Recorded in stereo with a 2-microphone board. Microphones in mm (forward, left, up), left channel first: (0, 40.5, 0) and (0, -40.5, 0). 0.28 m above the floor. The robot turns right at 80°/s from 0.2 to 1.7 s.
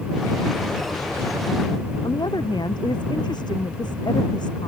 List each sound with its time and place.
2.0 s a woman speaking: 65° left (ahead or behind)